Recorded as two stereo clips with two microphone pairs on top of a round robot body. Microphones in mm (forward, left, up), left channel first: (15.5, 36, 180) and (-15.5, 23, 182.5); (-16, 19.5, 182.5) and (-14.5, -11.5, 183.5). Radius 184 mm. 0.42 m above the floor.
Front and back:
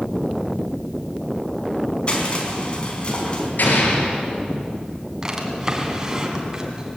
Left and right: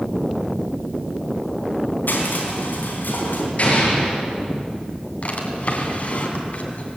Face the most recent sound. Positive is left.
turn(degrees=130)